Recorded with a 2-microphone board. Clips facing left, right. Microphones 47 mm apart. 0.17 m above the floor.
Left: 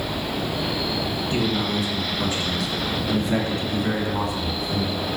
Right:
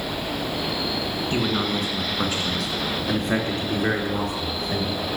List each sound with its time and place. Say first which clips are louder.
1.3 s a man speaking: even; 40° right (ahead or behind), 2.5 m; by 5.0 s 55° right (ahead or behind), 3.5 m